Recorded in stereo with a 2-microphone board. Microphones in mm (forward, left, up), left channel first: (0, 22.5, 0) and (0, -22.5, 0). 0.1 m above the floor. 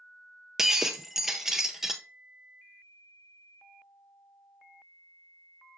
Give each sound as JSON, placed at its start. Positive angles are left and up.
{"t": 0.6, "sound": "breaking glass", "side_deg": -10, "distance_m": 0.7}